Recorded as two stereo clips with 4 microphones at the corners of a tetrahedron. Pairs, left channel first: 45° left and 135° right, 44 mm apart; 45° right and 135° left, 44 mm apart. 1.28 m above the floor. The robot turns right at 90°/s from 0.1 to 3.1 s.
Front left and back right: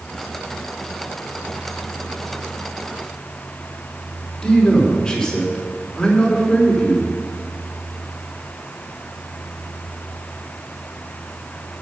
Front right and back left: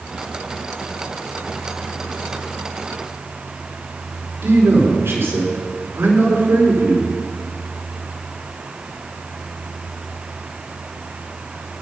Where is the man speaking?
120° left, 3 m.